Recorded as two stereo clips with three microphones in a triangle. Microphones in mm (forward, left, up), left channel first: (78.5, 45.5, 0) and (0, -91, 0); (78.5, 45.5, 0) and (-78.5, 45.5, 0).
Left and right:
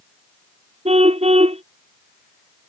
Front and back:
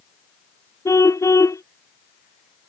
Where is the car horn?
70° right.